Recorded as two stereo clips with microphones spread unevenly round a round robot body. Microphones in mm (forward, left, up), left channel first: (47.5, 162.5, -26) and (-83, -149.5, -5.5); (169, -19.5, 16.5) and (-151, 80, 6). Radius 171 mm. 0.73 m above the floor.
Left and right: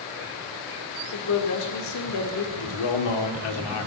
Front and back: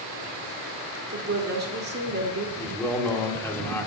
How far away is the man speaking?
About 1.5 m.